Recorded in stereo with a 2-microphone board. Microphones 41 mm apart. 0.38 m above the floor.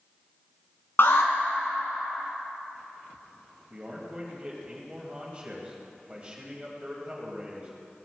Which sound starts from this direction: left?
An alarm, at 1.0 s.